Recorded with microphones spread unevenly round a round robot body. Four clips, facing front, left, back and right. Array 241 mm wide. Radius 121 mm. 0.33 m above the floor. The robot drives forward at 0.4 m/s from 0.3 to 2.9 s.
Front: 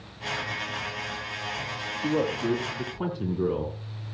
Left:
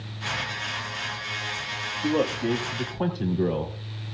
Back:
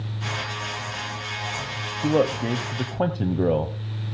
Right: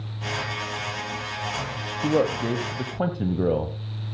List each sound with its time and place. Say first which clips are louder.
2.0 s a man speaking: right 2 dB, back 4 dB; 155° right, 1.3 m; by 3.8 s 165° right, 1.5 m